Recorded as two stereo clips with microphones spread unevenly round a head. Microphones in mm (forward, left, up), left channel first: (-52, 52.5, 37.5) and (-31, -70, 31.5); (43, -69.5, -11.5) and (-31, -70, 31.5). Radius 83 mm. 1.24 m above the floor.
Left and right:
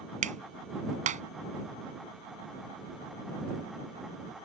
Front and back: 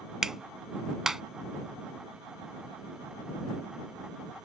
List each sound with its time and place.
0.2 s a clap: 100° right